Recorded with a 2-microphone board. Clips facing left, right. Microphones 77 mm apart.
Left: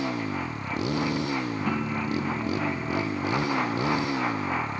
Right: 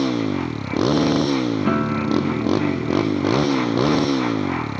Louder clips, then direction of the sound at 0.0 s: Right 8 dB; 75° right (ahead or behind).